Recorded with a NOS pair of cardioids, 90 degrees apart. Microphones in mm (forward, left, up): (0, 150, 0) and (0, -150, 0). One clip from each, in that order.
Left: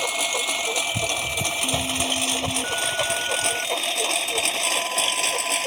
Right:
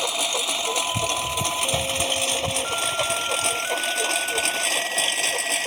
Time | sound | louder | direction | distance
0.0 | a lawn mower | even | 5° right | ?